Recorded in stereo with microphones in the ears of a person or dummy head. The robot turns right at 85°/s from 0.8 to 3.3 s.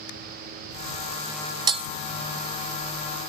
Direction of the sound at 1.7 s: 25° right (ahead or behind).